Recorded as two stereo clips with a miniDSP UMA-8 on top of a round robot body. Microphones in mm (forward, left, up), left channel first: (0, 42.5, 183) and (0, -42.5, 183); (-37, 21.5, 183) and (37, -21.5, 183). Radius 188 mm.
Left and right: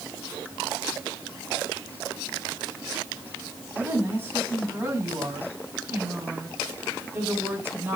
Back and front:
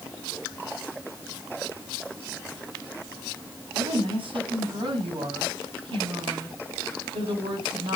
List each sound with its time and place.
3.7 s a woman speaking: 30° right, 6.5 m